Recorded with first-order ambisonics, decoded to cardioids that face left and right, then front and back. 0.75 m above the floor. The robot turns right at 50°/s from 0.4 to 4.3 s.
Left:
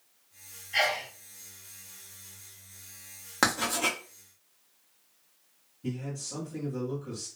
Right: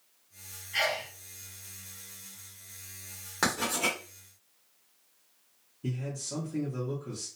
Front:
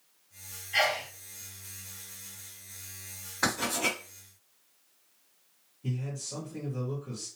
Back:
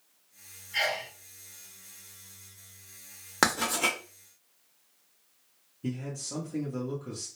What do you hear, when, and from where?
0.7 s a sneeze: 25° left, 1.7 m; by 1.1 s 40° left, 1.7 m
3.4 s writing: 160° left, 1.3 m; by 4.0 s 170° right, 1.3 m
5.8 s a man speaking: 145° right, 1.0 m